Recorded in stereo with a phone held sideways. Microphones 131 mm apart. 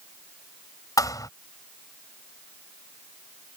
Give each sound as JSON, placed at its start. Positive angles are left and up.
{"t": 1.0, "sound": "a thud", "side_deg": 30}